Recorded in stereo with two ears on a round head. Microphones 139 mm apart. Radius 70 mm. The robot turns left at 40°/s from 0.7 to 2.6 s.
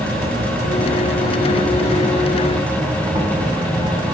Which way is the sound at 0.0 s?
75° right.